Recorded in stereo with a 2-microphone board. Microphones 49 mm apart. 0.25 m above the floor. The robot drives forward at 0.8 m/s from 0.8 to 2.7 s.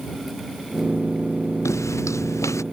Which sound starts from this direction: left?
Footsteps, at 1.6 s.